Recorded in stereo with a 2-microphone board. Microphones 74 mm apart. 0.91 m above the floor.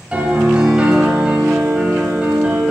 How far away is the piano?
About 1.3 m.